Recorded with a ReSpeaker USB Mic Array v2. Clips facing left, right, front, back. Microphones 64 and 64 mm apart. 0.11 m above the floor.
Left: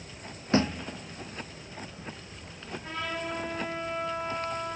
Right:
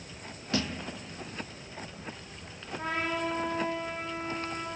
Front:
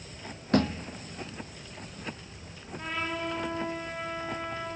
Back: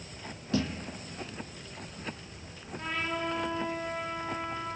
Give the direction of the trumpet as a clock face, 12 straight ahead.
3 o'clock.